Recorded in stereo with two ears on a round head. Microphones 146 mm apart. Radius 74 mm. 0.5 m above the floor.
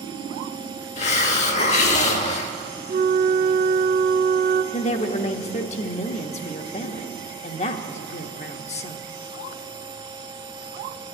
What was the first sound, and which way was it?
A hiss, 45° left (ahead or behind).